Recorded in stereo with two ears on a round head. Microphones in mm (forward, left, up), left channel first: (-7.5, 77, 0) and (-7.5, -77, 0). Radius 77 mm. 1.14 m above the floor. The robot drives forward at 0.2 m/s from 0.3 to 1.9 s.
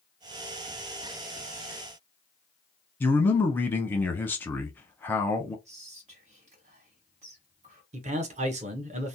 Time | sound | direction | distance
3.0 | a man speaking | 10° left (ahead or behind) | 0.6 m
5.7 | whispering | 40° right (ahead or behind) | 1.4 m
7.9 | a man speaking | 40° right (ahead or behind) | 0.6 m